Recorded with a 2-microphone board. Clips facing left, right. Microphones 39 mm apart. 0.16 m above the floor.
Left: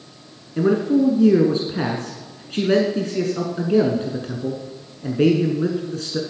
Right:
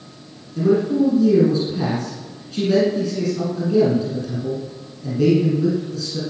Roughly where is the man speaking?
Left.